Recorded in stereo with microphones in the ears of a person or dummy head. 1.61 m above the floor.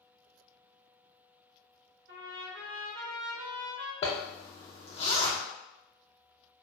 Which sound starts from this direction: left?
A zipper, at 4.0 s.